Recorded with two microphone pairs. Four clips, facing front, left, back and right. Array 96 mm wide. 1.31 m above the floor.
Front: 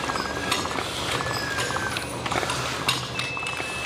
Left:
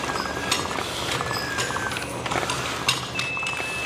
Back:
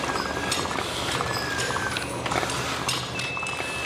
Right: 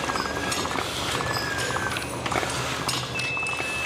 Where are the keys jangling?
35° left, 9.5 m; by 3.9 s 40° left, 10.5 m.